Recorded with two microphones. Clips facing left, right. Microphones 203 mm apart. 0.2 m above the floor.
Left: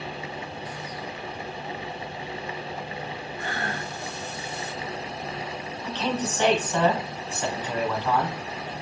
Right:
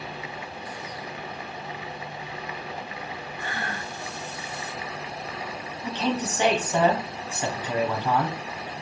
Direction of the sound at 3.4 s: 45° left (ahead or behind).